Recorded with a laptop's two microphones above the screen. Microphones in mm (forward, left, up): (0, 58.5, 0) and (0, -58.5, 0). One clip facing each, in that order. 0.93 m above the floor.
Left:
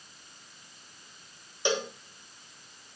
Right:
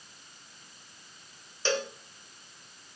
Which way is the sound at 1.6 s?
15° left (ahead or behind).